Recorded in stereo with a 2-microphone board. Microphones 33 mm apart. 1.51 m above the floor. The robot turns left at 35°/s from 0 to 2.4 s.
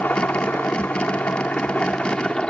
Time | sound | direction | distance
0.0 | a helicopter | 115° left | ?